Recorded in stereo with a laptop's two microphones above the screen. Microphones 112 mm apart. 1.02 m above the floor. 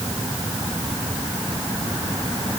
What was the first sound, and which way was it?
Only background noise.